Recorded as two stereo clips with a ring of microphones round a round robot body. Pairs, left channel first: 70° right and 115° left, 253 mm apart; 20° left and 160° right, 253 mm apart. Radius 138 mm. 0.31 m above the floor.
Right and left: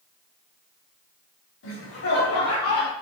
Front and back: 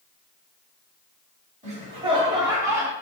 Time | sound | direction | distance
1.6 | laughter | 95° right | 2 m